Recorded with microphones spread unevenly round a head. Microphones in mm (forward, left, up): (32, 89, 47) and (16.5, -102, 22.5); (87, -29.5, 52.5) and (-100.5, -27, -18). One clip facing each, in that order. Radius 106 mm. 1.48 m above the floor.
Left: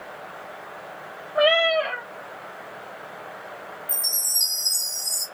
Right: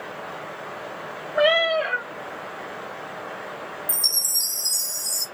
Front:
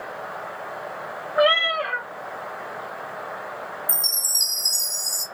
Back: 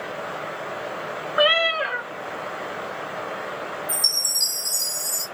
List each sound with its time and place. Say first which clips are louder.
1.4 s a cat meowing: even, front 1 dB; 135° right, 1.3 m
3.9 s a chime: right 2 dB, back 3 dB; 45° right, 0.9 m